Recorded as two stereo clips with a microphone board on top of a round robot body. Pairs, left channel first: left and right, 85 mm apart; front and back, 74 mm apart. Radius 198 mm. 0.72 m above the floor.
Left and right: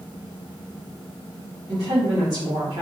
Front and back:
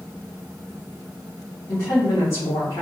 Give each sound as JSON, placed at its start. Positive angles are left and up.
{"t": 1.7, "sound": "a woman speaking", "azimuth_deg": -50, "distance_m": 2.0}